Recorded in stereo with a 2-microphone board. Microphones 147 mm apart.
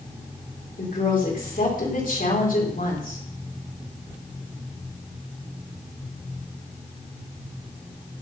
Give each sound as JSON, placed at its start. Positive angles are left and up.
{"t": 0.8, "sound": "a woman speaking", "side_deg": 70, "distance_m": 4.5}